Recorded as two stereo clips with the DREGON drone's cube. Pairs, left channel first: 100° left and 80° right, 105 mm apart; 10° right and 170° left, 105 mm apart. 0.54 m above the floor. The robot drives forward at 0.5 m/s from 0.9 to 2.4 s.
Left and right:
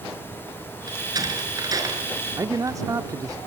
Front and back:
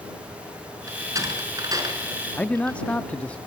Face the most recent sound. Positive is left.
turn(degrees=-80)